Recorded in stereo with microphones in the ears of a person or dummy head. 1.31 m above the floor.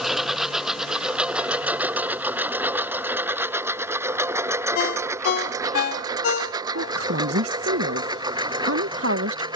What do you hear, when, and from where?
0.0 s a lawn mower: 5° right (ahead or behind); by 9.6 s 30° right (ahead or behind)
4.8 s a ringtone: 50° left (ahead or behind)
6.8 s a woman speaking: 75° right (ahead or behind)